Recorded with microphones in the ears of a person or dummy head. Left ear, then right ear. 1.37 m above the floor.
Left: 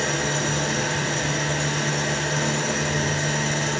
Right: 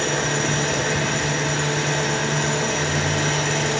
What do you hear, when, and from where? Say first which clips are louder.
0.0 s an engine running: right 2 dB; 40° right (ahead or behind), 8.5 m